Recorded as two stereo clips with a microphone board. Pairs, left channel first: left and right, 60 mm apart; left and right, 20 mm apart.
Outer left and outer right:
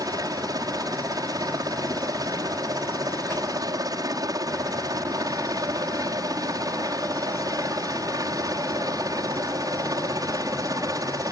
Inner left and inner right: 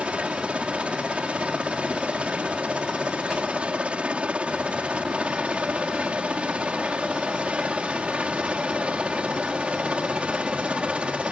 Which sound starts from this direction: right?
A helicopter, at 0.0 s.